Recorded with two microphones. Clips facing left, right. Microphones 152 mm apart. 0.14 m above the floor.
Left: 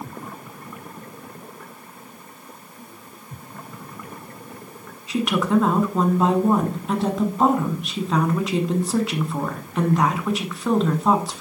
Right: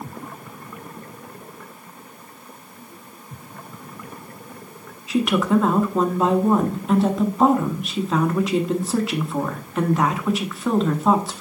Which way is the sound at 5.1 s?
Centre (ahead or behind).